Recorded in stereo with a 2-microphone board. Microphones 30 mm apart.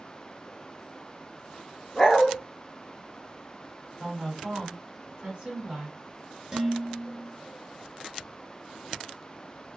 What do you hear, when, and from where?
1.9 s a dog barking: 5° left (ahead or behind), 1.9 m
4.0 s a woman speaking: 35° right (ahead or behind), 2.0 m
6.5 s dishes clattering: 15° right (ahead or behind), 0.9 m